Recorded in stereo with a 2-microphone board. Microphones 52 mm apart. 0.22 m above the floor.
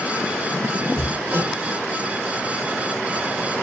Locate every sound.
1.0 s hammering: 45° right (ahead or behind), 5 m